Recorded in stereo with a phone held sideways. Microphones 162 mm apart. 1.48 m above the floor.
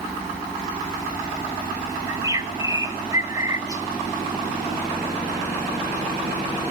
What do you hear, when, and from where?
2.1 s a bird: 20° right (ahead or behind), 1.5 m